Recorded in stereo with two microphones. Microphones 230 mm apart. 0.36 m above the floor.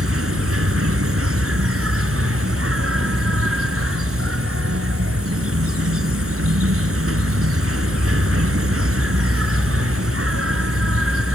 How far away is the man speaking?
No man speaking in this recording.